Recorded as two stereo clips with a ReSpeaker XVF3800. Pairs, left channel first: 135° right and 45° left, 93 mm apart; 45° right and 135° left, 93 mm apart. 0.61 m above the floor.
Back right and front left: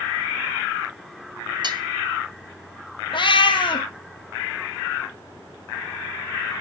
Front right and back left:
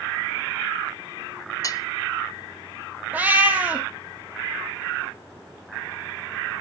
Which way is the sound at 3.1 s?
155° right.